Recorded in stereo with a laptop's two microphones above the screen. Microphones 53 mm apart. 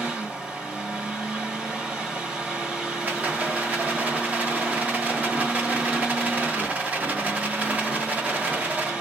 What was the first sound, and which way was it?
A fan, 20° right (ahead or behind).